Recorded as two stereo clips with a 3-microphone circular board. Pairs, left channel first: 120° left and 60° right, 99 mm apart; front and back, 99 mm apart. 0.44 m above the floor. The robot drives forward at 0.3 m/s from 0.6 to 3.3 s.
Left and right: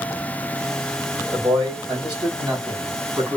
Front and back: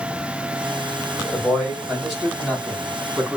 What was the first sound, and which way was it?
A man speaking, 85° right.